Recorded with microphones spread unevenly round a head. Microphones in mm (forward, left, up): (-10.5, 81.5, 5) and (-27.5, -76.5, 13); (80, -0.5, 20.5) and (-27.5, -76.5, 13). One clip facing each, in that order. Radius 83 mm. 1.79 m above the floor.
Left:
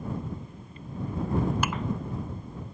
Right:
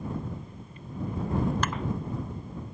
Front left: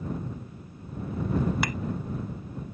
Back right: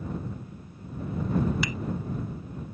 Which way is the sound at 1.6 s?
Straight ahead.